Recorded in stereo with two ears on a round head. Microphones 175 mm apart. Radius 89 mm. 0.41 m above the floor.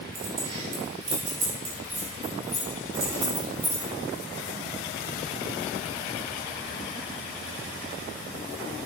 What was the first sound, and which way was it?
Keys jangling, 30° right (ahead or behind).